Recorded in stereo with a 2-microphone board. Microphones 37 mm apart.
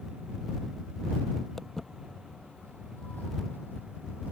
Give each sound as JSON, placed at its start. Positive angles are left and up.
{"t": 1.6, "sound": "footsteps", "side_deg": 10}